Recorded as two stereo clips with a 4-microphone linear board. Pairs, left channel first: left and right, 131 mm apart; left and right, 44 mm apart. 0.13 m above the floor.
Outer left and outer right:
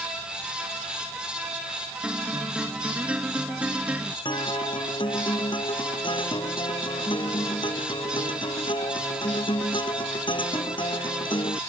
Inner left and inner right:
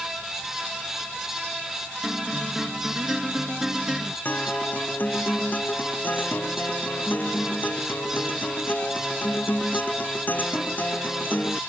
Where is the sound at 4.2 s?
40° left (ahead or behind).